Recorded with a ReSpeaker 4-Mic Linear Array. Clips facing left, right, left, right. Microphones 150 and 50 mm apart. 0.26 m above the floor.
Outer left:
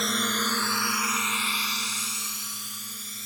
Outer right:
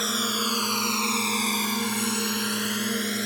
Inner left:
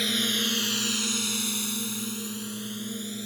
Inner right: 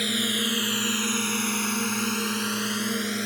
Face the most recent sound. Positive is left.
turn(degrees=-65)  # may be behind; listen again after turning